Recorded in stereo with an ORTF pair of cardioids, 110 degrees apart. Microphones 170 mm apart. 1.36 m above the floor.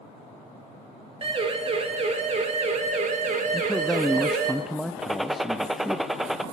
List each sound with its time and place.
1.2 s a siren: 35° right, 3.5 m; by 4.5 s 70° right, 2 m
3.5 s a man speaking: straight ahead, 0.5 m
5.0 s a gunshot: 5° right, 0.7 m